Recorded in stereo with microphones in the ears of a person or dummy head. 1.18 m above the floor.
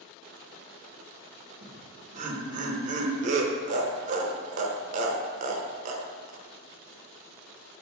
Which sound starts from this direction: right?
Laughter, at 1.6 s.